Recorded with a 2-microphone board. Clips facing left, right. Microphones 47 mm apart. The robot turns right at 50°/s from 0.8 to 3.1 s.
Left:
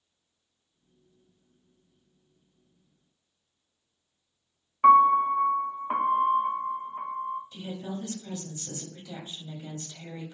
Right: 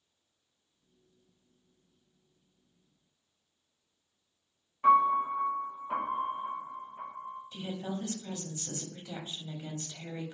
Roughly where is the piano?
Left.